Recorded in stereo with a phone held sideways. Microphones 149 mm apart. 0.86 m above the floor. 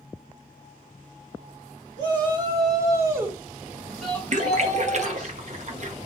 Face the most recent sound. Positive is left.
turn(degrees=-50)  # may be behind; listen again after turning